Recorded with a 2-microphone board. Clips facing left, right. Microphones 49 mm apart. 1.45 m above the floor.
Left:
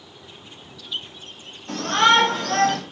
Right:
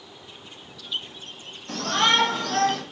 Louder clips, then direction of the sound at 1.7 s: Left 5 dB; 30° left (ahead or behind).